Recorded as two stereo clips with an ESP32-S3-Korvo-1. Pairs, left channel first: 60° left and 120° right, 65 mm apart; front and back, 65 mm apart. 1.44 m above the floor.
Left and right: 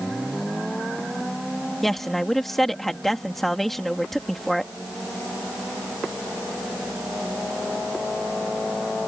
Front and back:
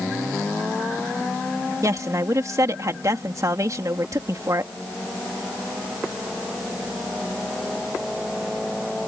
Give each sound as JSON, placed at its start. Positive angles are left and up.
{"t": 1.8, "sound": "a woman speaking", "azimuth_deg": 145}